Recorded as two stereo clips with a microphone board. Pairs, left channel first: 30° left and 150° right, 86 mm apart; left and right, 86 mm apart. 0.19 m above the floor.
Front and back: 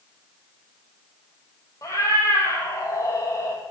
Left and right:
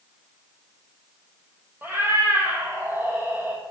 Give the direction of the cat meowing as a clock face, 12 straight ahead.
1 o'clock.